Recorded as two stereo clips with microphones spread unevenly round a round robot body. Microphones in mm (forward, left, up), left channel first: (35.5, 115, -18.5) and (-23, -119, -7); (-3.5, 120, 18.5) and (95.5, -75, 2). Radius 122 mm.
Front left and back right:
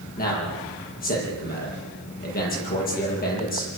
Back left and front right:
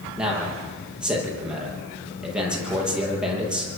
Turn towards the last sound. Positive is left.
turn(degrees=20)